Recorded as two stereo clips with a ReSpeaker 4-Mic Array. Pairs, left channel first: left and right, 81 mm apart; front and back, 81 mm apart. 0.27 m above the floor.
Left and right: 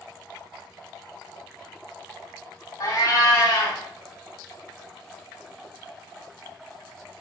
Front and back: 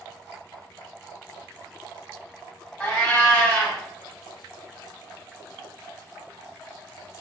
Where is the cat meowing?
65° left, 0.9 m.